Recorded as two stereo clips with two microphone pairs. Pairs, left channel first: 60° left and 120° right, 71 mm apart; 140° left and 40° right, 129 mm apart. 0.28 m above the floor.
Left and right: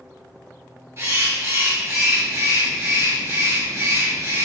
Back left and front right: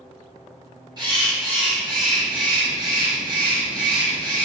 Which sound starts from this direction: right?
A bird, at 1.0 s.